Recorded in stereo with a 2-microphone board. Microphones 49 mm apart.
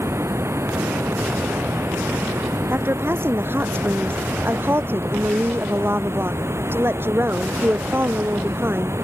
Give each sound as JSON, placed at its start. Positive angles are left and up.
{"t": 0.0, "sound": "running water", "side_deg": -75}
{"t": 2.7, "sound": "a woman speaking", "side_deg": -55}